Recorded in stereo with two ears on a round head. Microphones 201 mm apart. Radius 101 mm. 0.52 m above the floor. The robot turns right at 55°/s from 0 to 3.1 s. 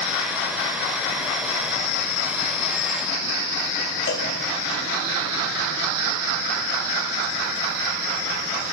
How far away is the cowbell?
About 2.5 m.